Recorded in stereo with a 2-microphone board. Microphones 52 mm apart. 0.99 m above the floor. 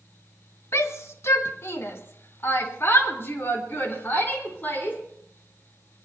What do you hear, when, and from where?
0.7 s a shout: 60° left (ahead or behind), 1.4 m; by 5.0 s 35° left (ahead or behind), 4 m